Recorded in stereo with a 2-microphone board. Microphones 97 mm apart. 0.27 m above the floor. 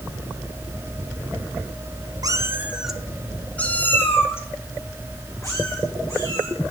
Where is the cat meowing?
40° right (ahead or behind), 0.6 m; by 6.5 s 35° left (ahead or behind), 3.5 m.